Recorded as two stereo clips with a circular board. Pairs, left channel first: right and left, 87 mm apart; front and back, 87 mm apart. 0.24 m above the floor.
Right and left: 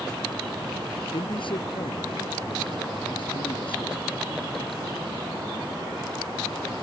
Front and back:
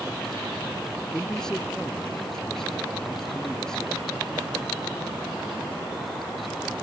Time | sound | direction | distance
1.1 | a man speaking | 85° right | ?